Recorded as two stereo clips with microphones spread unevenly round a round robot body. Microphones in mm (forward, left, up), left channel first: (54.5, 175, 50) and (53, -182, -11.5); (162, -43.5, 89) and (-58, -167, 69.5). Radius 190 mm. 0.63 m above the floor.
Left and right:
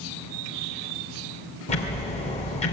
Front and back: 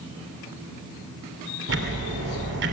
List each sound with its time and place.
1.7 s ticking: 165° left, 2.5 m